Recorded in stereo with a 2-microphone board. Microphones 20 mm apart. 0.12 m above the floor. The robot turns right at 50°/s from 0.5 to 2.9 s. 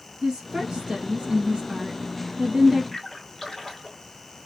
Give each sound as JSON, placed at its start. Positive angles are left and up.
{"t": 0.2, "sound": "a woman speaking", "azimuth_deg": -130, "distance_m": 1.5}
{"t": 2.9, "sound": "a splash", "side_deg": 20, "distance_m": 2.0}